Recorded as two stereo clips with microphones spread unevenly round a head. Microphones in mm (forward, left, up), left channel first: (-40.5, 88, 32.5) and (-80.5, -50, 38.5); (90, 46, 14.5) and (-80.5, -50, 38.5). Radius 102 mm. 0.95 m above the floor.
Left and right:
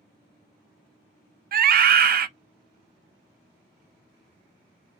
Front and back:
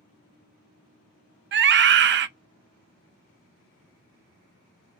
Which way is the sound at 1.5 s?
115° right.